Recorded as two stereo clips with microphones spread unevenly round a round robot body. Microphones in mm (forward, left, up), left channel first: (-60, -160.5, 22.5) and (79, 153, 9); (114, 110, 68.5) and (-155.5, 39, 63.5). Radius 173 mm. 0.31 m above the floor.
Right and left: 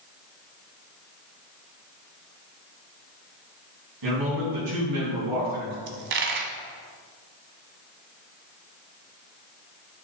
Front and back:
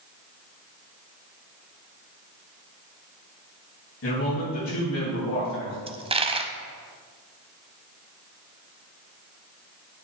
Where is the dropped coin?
125° left, 1.0 m.